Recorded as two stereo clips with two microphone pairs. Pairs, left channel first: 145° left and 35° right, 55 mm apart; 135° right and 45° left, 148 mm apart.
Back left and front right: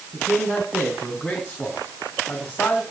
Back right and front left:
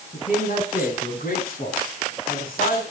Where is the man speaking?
100° right, 5 m; by 2.8 s 150° right, 5 m.